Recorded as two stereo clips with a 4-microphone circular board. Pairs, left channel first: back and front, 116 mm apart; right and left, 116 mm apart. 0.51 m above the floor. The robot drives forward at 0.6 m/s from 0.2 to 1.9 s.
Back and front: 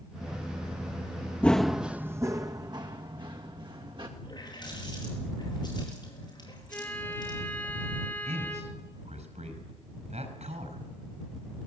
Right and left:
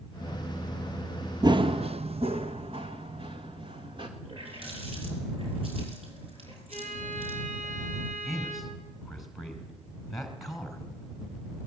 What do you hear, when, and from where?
1.4 s running footsteps: 105° left, 0.6 m; by 4.1 s 45° left, 3.5 m
4.2 s a running tap: 125° left, 7.5 m
6.7 s a violin: 105° left, 3 m
8.2 s a man speaking: straight ahead, 5 m